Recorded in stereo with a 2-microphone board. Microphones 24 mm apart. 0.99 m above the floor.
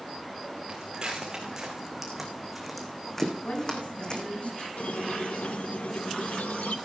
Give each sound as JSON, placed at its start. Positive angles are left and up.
{"t": 0.7, "sound": "footsteps", "side_deg": -35, "distance_m": 4.5}
{"t": 3.4, "sound": "a woman speaking", "side_deg": 65, "distance_m": 8.5}
{"t": 4.8, "sound": "a squeak", "side_deg": 80, "distance_m": 0.8}